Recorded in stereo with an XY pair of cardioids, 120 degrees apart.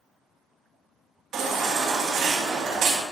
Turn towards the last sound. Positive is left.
turn(degrees=-65)